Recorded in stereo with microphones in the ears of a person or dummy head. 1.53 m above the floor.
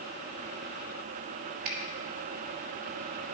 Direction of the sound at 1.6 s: 55° right (ahead or behind).